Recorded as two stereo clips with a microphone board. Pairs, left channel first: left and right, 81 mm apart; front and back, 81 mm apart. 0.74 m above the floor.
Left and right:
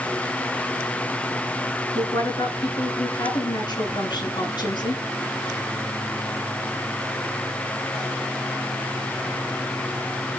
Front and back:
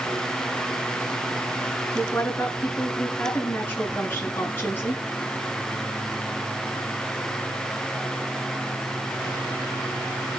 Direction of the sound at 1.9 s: 65° left.